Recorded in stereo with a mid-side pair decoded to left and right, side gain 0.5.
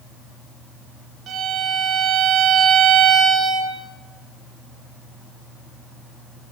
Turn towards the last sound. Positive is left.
turn(degrees=-60)